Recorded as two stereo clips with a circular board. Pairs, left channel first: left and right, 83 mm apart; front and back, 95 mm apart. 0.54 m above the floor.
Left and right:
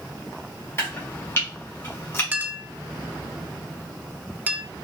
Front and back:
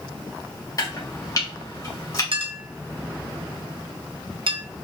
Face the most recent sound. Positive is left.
turn(degrees=-160)